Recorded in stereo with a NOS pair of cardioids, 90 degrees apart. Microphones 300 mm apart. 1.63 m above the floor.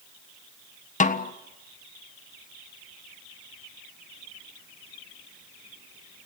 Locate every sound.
1.0 s a snare drum: 25° left, 1.5 m